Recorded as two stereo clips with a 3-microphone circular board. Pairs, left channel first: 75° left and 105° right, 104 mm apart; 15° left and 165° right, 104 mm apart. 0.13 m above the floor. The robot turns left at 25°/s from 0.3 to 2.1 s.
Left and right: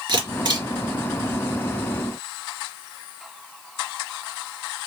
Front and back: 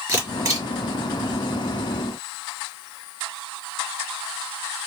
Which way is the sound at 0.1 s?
115° right.